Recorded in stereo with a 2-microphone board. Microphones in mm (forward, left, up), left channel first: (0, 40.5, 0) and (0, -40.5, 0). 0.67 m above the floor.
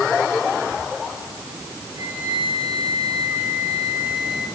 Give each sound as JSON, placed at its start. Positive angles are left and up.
{"t": 2.0, "sound": "a flute", "side_deg": -85, "distance_m": 8.0}